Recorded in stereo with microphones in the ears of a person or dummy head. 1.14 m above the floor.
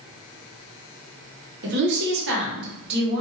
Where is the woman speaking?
60° right (ahead or behind), 1.2 m.